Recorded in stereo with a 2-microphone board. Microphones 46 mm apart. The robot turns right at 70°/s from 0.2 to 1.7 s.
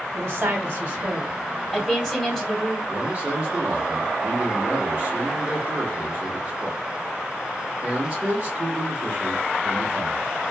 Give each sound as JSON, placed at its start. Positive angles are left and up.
{"t": 0.1, "sound": "a woman speaking", "azimuth_deg": -90, "distance_m": 1.6}
{"t": 2.9, "sound": "a man speaking", "side_deg": -20, "distance_m": 0.8}